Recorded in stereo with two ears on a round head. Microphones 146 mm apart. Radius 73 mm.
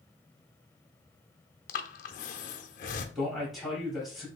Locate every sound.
1.7 s breathing: 55° left (ahead or behind), 0.6 m
3.1 s a man speaking: centre (ahead or behind), 2.5 m